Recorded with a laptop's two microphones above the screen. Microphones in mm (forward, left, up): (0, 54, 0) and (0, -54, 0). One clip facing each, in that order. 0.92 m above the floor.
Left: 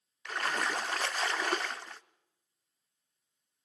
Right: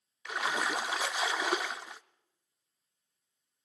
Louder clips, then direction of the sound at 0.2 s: Right 1 dB; 10° right (ahead or behind).